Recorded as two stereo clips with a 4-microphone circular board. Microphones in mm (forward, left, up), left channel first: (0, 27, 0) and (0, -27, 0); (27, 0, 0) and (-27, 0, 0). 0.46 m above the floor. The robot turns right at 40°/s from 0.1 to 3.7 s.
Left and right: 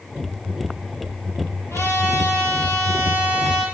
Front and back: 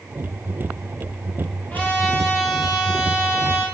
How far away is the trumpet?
About 9 m.